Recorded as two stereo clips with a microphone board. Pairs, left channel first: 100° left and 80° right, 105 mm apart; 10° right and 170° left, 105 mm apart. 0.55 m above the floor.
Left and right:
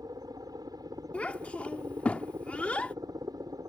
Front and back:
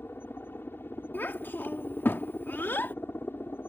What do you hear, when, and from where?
0.0 s a helicopter: 70° right
1.1 s a child speaking: 35° left